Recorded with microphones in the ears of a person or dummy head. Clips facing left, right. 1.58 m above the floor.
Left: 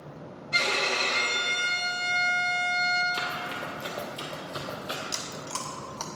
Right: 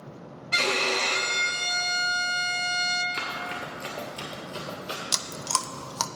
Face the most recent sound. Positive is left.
turn(degrees=-65)  # may be behind; listen again after turning